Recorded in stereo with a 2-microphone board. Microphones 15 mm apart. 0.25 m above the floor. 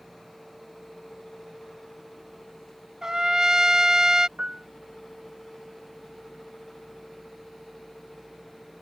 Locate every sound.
3.0 s a trumpet: 45° right (ahead or behind)
4.4 s a piano: 80° right